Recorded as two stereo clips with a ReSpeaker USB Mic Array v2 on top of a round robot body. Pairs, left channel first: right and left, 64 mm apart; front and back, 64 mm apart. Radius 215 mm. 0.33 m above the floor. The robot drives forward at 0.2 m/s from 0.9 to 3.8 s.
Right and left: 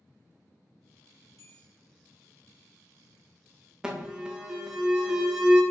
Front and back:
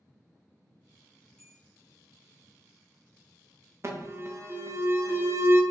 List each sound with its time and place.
1.4 s a bell: 80° right, 1.5 m; by 1.7 s 85° right, 1.5 m
3.8 s an alarm: 165° left, 0.8 m